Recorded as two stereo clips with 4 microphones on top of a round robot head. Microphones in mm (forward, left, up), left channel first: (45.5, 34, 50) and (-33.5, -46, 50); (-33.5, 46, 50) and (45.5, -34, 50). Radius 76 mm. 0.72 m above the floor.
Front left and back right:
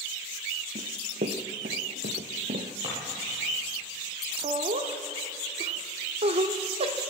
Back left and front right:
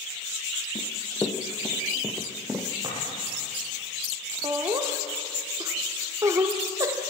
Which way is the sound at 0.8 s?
165° right.